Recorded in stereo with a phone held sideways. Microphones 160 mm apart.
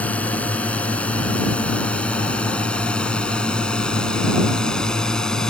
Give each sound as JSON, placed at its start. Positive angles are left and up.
{"t": 0.0, "sound": "a drone", "side_deg": 10}